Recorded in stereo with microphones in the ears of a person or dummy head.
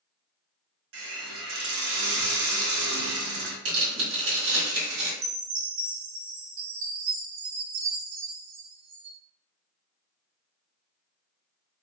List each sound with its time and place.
0.9 s a hiss: 75° right (ahead or behind), 1.1 m
3.6 s tearing paper: 65° right (ahead or behind), 1.8 m
5.2 s a chime: 55° right (ahead or behind), 0.9 m